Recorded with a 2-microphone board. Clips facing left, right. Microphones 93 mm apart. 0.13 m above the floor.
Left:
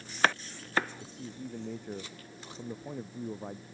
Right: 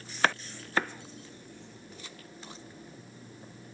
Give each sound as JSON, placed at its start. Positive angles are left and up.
{"t": 1.0, "sound": "a man speaking", "side_deg": 70}